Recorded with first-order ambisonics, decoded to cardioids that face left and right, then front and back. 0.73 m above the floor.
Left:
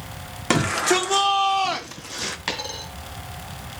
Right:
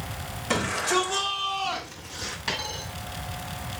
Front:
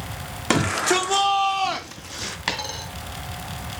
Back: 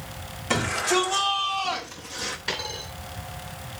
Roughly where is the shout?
Ahead left.